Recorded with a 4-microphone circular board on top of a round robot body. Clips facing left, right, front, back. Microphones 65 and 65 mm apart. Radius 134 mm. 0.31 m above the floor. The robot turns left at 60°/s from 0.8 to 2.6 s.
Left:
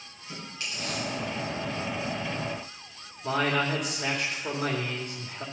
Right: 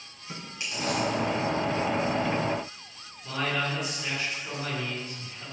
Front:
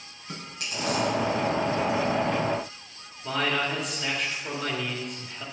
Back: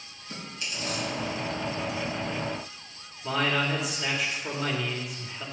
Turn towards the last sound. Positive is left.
turn(degrees=95)